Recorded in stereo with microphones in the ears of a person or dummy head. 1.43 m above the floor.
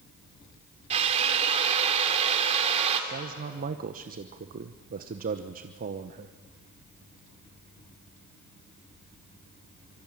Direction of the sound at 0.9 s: 30° right (ahead or behind).